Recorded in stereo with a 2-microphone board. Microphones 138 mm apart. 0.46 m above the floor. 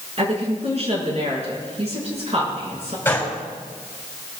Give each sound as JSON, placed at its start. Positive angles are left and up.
{"t": 0.2, "sound": "a woman speaking", "side_deg": -50, "distance_m": 7.0}
{"t": 3.0, "sound": "a gunshot", "side_deg": 15, "distance_m": 3.5}